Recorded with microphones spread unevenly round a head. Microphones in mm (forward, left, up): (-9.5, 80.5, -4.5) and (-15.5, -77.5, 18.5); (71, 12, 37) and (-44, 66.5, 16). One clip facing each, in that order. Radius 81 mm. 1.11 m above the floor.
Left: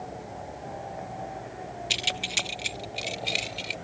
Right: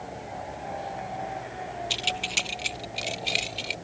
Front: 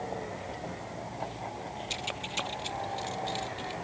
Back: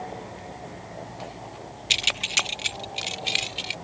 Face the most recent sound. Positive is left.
turn(degrees=180)